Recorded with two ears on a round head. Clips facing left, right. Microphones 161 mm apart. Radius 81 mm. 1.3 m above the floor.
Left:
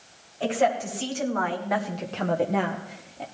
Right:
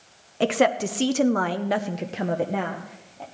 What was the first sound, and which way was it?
A woman speaking, 75° right (ahead or behind).